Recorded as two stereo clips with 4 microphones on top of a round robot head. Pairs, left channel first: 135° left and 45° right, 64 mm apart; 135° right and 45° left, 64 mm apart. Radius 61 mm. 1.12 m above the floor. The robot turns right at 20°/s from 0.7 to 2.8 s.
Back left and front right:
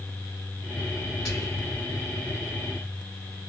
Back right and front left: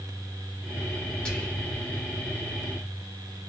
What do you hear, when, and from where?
1.2 s whispering: 150° left, 1.4 m; by 1.7 s 160° left, 1.4 m